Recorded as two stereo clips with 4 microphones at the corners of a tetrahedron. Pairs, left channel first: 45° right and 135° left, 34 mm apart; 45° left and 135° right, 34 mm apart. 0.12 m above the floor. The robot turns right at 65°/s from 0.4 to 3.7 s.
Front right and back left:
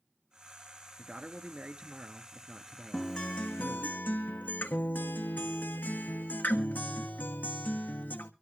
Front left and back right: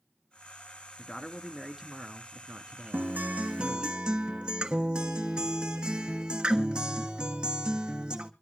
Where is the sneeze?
No sneeze in this recording.